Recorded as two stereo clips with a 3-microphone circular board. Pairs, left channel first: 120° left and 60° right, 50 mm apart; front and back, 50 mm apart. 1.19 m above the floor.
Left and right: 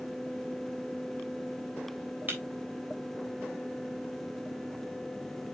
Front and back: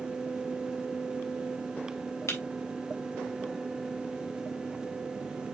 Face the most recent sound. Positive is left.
turn(degrees=-10)